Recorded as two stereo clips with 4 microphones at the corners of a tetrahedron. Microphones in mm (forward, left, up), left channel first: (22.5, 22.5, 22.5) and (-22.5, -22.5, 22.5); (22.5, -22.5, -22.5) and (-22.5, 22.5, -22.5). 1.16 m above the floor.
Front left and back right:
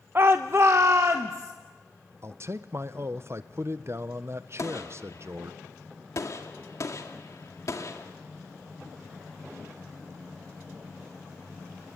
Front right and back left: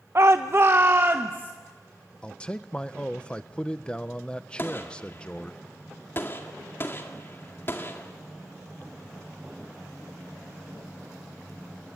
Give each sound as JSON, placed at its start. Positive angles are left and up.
{"t": 0.1, "sound": "a shout", "azimuth_deg": 175, "distance_m": 0.7}
{"t": 2.2, "sound": "a man speaking", "azimuth_deg": -110, "distance_m": 0.8}
{"t": 4.6, "sound": "a gunshot", "azimuth_deg": 5, "distance_m": 2.0}